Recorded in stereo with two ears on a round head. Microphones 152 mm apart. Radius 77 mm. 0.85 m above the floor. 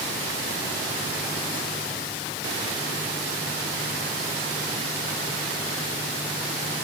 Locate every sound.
Only background noise.